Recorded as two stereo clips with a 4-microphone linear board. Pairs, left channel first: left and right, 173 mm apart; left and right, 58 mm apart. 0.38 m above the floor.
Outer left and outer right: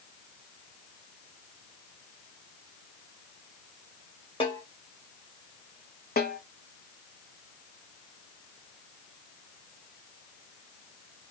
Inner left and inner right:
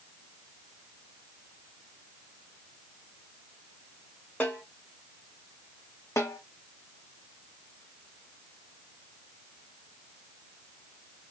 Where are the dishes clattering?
I don't hear dishes clattering.